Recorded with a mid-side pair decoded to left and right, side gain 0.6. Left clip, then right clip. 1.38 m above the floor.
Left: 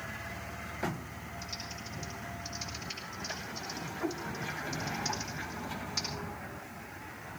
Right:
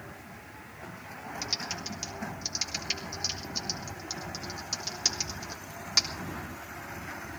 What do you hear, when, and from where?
1.4 s typing on a keyboard: 60° right, 3 m